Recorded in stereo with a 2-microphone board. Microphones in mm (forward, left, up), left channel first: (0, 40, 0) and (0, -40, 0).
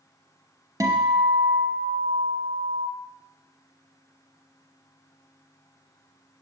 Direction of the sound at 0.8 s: 50° right (ahead or behind).